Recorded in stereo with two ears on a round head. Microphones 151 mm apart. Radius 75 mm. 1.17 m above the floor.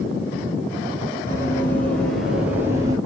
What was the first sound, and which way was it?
Running footsteps, 15° left (ahead or behind).